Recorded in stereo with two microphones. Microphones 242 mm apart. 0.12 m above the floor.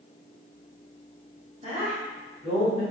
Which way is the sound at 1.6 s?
30° right (ahead or behind).